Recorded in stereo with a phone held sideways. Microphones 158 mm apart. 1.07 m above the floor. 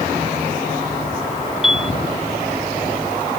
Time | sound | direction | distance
1.6 | a piano | centre (ahead or behind) | ?